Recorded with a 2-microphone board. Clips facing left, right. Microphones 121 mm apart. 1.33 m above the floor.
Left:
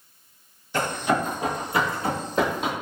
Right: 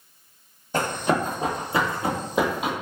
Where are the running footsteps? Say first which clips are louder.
Right 1 dB; 40° right (ahead or behind), 2.0 m; by 2.7 s 5° right (ahead or behind), 1.6 m.